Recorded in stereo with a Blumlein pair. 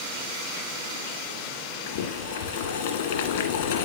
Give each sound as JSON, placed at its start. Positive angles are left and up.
{"t": 1.9, "sound": "boiling", "azimuth_deg": 55, "distance_m": 1.7}